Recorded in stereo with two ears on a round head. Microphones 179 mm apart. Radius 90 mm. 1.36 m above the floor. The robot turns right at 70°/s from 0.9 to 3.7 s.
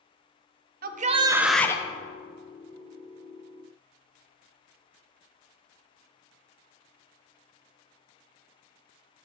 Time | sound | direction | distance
0.8 | a shout | 45° right | 0.5 m